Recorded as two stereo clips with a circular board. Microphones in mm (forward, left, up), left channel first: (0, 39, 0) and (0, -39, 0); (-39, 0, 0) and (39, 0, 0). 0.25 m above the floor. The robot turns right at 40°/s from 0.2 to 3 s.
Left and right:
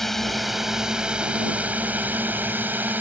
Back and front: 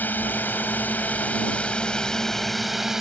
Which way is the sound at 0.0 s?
170° left.